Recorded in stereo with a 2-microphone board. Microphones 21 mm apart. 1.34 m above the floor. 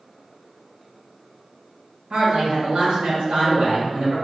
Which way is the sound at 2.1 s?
80° right.